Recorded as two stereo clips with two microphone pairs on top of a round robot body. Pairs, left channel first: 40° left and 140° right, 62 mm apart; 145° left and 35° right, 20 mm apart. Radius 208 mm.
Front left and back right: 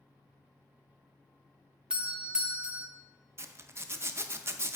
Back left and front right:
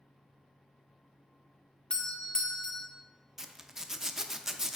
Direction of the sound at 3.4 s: 105° right.